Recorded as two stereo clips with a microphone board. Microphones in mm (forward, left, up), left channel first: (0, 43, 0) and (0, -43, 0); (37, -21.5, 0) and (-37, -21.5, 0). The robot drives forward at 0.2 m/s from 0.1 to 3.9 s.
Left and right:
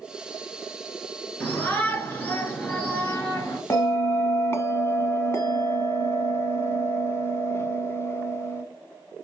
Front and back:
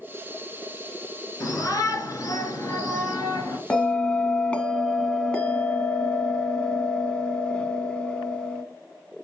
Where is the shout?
30° left, 3 m; by 3.6 s 35° left, 2.5 m.